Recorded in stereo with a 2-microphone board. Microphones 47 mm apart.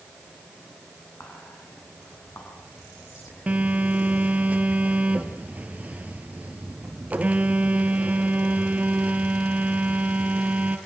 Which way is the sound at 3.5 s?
35° right (ahead or behind).